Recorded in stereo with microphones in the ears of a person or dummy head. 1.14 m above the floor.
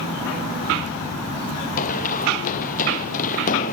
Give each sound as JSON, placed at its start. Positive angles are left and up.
{"t": 1.8, "sound": "running footsteps", "side_deg": 50}